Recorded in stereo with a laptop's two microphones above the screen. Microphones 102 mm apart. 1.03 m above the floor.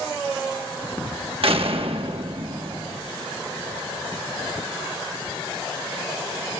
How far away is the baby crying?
No baby crying in this recording.